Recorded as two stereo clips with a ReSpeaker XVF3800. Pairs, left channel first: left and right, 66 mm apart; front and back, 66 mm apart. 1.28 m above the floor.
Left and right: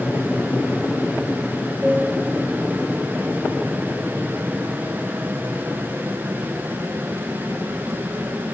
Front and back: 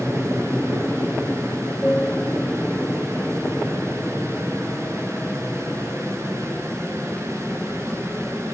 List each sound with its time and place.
0.0 s an aircraft: straight ahead; by 8.5 s 65° right